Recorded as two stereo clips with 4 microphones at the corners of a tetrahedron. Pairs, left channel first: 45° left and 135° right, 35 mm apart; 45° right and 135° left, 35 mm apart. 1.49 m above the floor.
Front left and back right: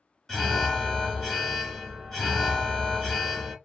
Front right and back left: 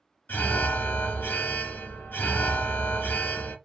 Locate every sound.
0.3 s an alarm: 35° right, 1.6 m